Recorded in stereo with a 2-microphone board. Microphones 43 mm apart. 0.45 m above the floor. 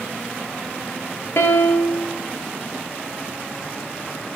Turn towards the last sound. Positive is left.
turn(degrees=70)  # may be behind; listen again after turning